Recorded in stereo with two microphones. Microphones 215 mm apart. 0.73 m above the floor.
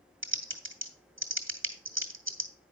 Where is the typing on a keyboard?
65° right (ahead or behind), 1.6 m.